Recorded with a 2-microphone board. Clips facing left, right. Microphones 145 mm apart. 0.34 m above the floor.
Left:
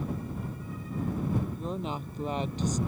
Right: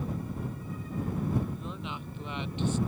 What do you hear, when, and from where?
1.5 s a woman speaking: 40° left (ahead or behind)